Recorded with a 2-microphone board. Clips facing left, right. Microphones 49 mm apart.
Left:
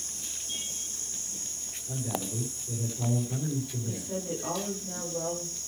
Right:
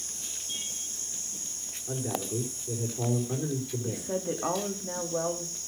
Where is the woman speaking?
60° right (ahead or behind), 3 m.